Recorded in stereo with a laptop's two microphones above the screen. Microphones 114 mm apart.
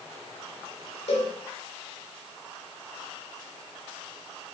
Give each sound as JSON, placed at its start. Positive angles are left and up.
{"t": 1.1, "sound": "a cowbell", "side_deg": 65, "distance_m": 3.5}